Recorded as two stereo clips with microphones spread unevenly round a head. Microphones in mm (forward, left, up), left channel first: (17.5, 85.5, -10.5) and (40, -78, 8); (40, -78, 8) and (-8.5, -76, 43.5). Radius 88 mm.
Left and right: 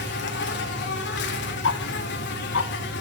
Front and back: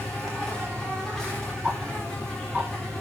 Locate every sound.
0.0 s an insect: 80° left, 2 m
1.6 s ticking: 95° left, 0.8 m